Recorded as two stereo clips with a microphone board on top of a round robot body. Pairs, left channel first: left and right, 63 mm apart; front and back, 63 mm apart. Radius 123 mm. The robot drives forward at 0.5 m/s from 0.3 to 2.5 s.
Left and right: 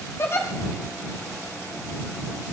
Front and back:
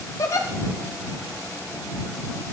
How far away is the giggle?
About 2 m.